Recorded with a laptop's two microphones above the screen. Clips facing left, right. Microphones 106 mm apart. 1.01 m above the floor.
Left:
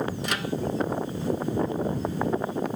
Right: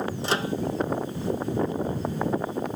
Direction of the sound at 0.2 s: 30° right (ahead or behind).